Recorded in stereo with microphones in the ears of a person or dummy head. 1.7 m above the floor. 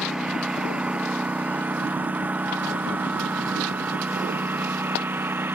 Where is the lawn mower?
Centre (ahead or behind); by 5.5 s 10° right (ahead or behind).